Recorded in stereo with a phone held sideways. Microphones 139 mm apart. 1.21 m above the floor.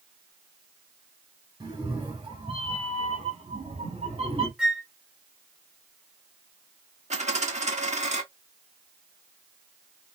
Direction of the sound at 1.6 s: 30° right (ahead or behind).